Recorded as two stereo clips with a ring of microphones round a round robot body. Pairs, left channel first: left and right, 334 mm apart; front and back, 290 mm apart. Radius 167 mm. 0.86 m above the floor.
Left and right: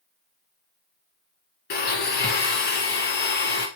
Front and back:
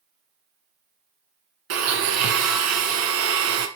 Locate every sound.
1.7 s a blender: 150° left, 1.7 m